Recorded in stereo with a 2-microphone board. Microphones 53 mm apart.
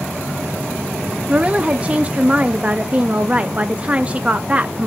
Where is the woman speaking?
25° right (ahead or behind), 0.5 m.